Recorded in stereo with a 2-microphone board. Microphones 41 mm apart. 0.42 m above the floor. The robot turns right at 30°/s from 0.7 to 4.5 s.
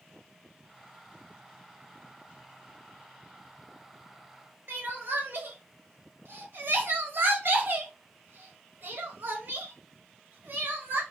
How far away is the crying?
About 1.0 m.